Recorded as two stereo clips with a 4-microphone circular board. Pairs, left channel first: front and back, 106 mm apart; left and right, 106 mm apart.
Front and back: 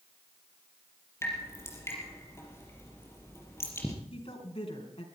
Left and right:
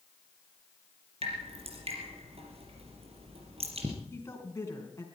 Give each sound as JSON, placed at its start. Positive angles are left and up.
{"t": 1.2, "sound": "dripping", "azimuth_deg": -65, "distance_m": 4.5}
{"t": 4.1, "sound": "a woman speaking", "azimuth_deg": 25, "distance_m": 4.5}